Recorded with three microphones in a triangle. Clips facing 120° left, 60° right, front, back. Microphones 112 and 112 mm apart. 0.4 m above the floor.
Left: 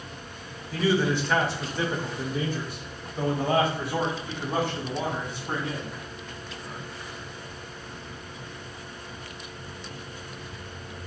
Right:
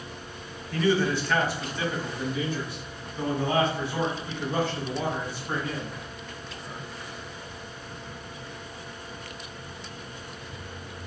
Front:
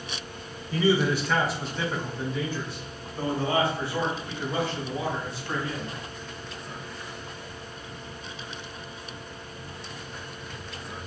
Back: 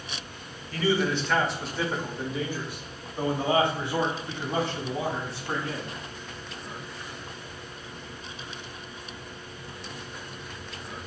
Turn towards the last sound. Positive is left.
turn(degrees=125)